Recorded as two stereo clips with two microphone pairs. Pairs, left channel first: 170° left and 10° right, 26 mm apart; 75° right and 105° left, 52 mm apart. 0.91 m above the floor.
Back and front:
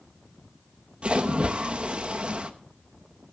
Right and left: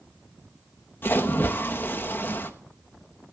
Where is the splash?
45° right, 1.0 m.